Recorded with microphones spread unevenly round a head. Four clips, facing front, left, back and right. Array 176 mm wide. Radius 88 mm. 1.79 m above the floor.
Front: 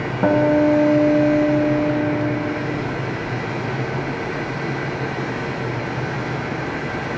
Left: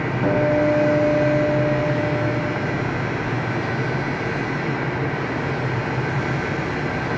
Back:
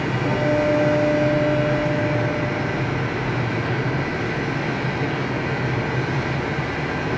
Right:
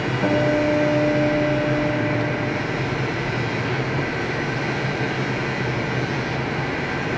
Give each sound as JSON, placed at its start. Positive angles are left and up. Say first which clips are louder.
{"t": 0.2, "sound": "a guitar", "louder": "left 1 dB, front 6 dB", "azimuth_deg": -5, "distance_m": 6.0}